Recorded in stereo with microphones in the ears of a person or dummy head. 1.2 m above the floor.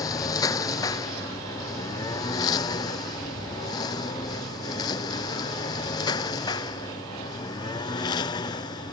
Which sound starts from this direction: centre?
A lawn mower, at 0.0 s.